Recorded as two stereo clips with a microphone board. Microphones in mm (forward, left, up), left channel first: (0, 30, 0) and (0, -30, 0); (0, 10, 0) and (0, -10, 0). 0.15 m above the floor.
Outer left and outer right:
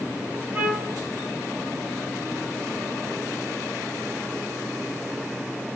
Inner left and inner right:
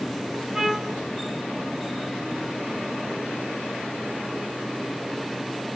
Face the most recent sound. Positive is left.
turn(degrees=-30)  # may be behind; listen again after turning